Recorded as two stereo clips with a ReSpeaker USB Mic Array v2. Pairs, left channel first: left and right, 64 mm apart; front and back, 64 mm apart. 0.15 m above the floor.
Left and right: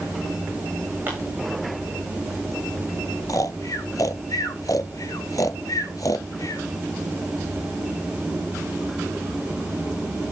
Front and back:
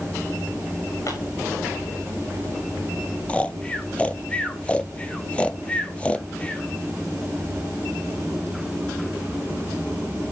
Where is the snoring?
70° left, 0.6 m.